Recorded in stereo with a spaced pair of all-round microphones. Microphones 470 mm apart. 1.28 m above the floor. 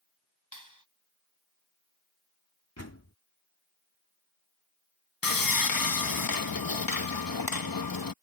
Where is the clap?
40° left (ahead or behind).